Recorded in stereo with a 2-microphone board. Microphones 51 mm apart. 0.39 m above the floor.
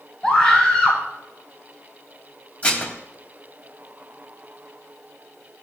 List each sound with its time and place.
0.2 s a scream: 20° left (ahead or behind), 6.5 m
2.6 s dishes clattering: 25° left (ahead or behind), 1.5 m